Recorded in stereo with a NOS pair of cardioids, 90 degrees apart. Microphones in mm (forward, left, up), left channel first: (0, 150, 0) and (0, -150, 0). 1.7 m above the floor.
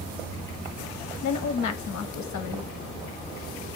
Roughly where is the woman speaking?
Ahead left.